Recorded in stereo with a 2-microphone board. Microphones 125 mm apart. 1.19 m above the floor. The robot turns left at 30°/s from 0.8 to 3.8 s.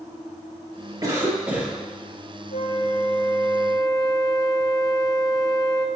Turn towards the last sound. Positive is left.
turn(degrees=40)